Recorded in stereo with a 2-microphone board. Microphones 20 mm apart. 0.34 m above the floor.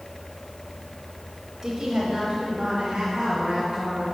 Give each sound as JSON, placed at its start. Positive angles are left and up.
{"t": 1.6, "sound": "a woman speaking", "side_deg": -25, "distance_m": 1.2}